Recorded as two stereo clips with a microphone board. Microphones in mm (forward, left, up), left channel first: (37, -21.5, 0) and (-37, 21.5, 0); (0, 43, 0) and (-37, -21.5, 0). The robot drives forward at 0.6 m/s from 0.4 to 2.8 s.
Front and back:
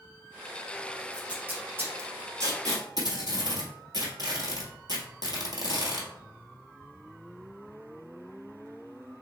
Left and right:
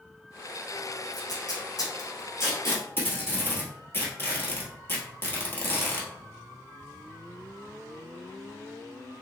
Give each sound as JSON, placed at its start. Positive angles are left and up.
{"t": 1.1, "sound": "tape being pulled", "azimuth_deg": 70, "distance_m": 1.4}